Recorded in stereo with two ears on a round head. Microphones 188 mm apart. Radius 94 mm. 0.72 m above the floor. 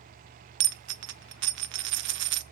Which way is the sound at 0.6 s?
60° right (ahead or behind).